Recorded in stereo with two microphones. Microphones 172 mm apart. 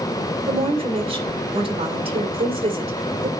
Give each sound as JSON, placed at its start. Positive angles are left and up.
{"t": 0.5, "sound": "a woman speaking", "side_deg": -35, "distance_m": 2.5}